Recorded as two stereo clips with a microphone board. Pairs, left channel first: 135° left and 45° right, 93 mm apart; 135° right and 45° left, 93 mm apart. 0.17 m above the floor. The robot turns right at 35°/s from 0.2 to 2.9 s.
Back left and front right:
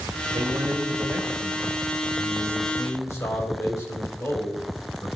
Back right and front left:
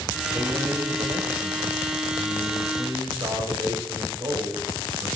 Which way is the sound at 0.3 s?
10° right.